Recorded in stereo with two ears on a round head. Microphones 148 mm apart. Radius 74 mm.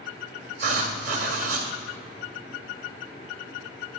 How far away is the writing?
About 2 m.